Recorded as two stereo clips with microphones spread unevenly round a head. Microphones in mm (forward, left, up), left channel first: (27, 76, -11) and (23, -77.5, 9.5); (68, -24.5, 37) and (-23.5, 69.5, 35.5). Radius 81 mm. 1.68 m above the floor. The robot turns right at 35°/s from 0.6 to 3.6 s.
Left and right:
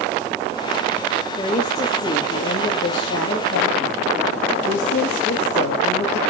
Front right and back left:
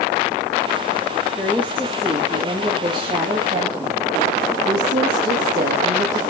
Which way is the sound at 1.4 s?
25° left.